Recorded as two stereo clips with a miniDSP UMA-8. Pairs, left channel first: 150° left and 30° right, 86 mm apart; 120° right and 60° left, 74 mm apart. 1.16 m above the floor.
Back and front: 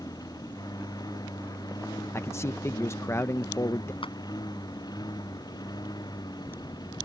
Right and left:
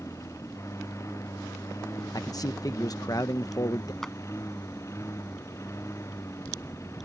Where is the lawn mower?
165° right; by 7.1 s 170° right.